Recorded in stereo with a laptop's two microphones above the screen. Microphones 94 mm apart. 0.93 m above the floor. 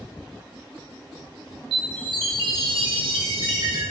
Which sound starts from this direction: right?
A chime, at 1.7 s.